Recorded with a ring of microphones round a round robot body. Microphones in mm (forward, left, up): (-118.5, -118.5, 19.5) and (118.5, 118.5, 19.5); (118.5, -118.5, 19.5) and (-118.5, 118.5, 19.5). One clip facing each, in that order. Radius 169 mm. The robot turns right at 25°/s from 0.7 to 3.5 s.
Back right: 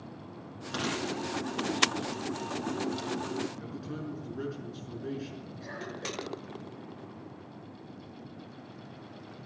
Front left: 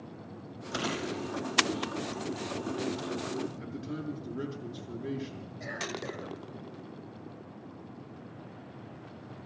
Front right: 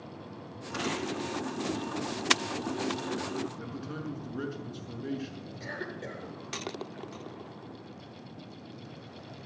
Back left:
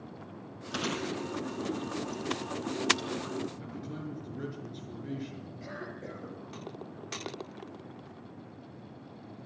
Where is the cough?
20° right, 6 m.